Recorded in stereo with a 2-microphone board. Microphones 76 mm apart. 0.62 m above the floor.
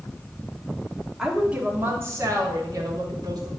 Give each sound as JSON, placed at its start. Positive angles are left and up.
{"t": 1.2, "sound": "a woman speaking", "side_deg": -5, "distance_m": 1.4}